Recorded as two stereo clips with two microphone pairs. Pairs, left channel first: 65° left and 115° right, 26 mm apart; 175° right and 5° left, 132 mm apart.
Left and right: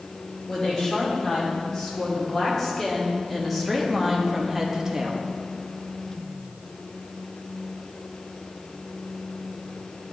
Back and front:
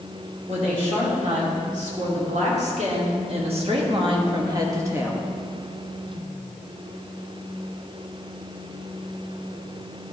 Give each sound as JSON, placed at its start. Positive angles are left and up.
{"t": 0.5, "sound": "a woman speaking", "azimuth_deg": 0, "distance_m": 2.5}